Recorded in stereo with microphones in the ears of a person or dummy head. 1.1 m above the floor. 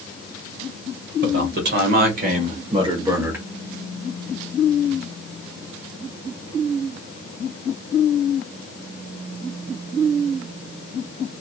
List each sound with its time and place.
1.2 s a man speaking: 55° right (ahead or behind), 1.5 m; by 3.5 s 5° right (ahead or behind), 0.9 m